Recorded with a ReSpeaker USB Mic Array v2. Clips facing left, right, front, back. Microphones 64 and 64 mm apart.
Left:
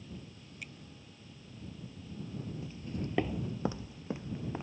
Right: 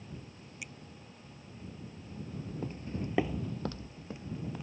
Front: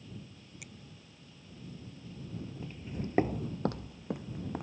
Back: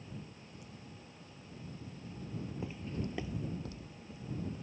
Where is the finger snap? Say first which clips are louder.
Right 1 dB, front 2 dB; 10° right.